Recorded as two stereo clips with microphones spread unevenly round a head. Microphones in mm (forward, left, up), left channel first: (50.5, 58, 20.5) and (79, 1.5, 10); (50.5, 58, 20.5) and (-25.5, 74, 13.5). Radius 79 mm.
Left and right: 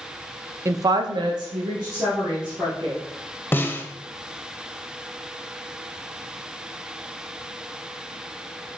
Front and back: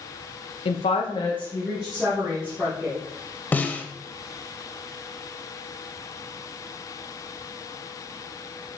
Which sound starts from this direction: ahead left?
A snare drum, at 3.5 s.